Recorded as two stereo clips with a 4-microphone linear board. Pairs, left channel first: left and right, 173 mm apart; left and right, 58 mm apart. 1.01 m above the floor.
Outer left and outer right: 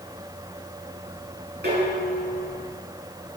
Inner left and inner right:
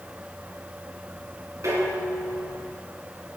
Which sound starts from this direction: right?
Dishes clattering, at 1.6 s.